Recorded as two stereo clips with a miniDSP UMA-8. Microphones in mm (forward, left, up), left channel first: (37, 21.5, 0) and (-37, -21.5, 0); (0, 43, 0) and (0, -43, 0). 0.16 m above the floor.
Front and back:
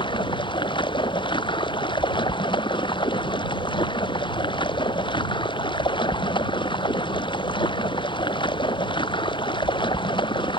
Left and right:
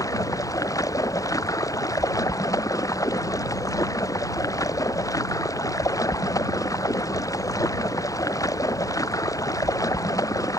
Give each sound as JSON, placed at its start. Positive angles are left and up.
{"t": 0.0, "sound": "running water", "azimuth_deg": 40}